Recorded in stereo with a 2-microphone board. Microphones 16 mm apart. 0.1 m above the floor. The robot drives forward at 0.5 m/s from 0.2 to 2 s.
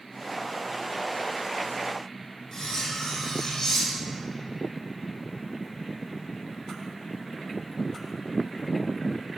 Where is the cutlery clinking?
10° left (ahead or behind), 2.5 m.